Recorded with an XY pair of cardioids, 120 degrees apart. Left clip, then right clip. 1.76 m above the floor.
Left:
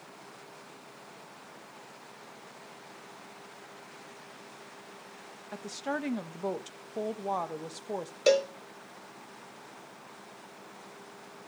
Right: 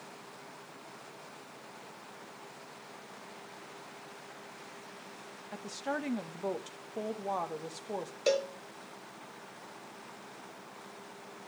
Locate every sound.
5.5 s a woman speaking: 15° left, 1.1 m
8.3 s a cowbell: 30° left, 0.7 m